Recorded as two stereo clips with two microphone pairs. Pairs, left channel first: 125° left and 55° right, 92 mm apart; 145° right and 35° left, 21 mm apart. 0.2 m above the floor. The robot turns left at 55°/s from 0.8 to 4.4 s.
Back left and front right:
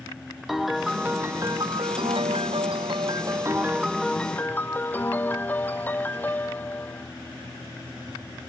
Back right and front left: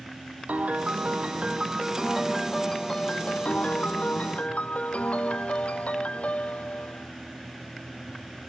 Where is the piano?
35° left; by 7.1 s 165° right.